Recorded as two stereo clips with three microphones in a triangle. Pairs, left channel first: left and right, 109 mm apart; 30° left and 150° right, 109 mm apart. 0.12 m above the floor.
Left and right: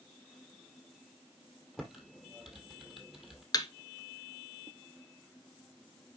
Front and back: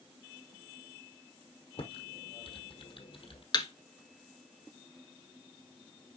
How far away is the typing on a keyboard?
About 1.4 m.